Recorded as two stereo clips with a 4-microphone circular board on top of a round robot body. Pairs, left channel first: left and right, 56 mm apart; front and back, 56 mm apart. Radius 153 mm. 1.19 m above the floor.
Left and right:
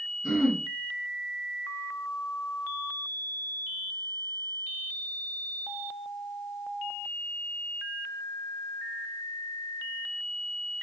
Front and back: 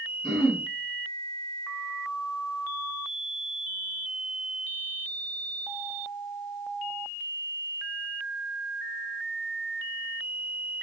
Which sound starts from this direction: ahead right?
Throat clearing, at 0.2 s.